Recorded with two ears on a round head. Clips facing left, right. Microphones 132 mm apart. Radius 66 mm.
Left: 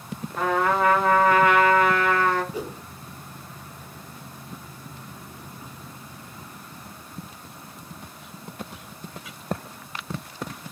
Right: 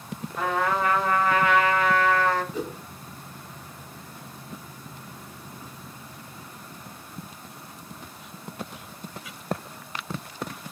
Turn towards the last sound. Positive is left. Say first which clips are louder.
# even
turn(degrees=10)  # may be behind; listen again after turning